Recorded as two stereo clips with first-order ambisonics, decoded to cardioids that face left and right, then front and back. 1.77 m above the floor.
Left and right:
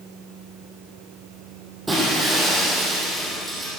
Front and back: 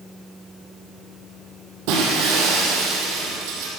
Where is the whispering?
No whispering in this recording.